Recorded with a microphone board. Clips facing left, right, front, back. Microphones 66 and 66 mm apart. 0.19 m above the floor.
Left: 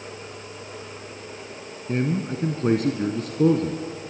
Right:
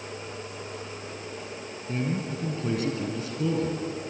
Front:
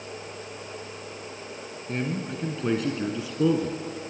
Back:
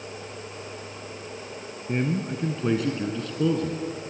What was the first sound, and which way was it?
A man speaking, 115° left.